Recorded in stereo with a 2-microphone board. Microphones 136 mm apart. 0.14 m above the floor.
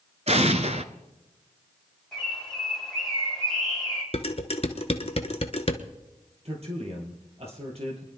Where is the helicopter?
No helicopter in this recording.